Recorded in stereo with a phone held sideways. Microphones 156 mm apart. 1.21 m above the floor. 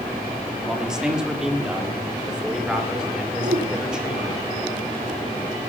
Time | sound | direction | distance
0.7 | a man speaking | 5° right (ahead or behind) | 3.5 m
3.4 | a whoosh | 85° right | 4.5 m